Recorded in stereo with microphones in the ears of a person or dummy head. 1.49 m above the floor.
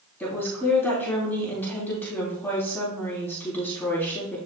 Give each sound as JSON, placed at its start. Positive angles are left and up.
{"t": 0.2, "sound": "a woman speaking", "side_deg": 10, "distance_m": 3.0}